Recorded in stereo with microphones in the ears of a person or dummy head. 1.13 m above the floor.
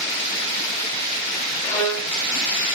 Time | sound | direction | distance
1.6 | a violin | 15° left (ahead or behind) | 1.2 m